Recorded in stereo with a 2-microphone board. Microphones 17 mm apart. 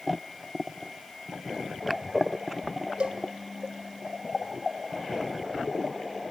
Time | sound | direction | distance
3.0 | a cowbell | 80° right | 1.5 m